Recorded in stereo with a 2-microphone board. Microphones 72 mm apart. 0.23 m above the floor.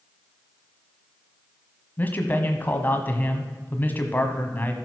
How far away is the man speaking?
About 1.3 m.